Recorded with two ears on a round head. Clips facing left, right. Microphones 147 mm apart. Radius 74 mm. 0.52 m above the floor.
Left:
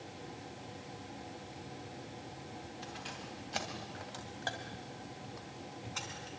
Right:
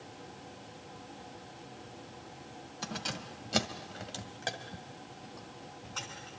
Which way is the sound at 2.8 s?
80° right.